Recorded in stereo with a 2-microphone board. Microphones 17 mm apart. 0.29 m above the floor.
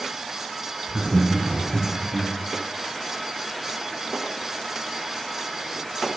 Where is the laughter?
35° right (ahead or behind), 2.5 m; by 2.3 s 60° right (ahead or behind), 4 m.